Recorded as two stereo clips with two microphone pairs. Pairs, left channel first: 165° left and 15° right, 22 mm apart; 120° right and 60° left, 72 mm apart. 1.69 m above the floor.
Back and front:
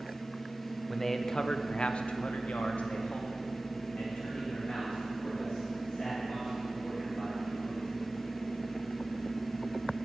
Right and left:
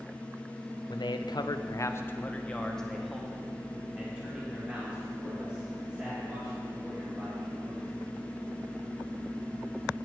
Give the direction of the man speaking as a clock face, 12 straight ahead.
4 o'clock.